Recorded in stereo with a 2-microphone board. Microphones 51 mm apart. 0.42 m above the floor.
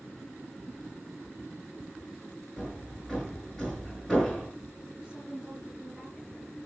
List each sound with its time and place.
2.6 s hammering: centre (ahead or behind), 6 m
5.0 s a woman speaking: 15° right (ahead or behind), 6.5 m